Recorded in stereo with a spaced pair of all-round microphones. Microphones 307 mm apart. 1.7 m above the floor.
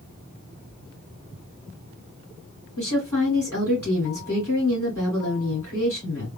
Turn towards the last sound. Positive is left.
turn(degrees=75)  # may be behind; listen again after turning